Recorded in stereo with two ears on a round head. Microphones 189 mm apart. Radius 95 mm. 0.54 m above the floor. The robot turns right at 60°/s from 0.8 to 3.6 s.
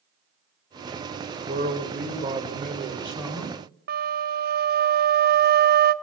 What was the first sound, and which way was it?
A man speaking, 130° right.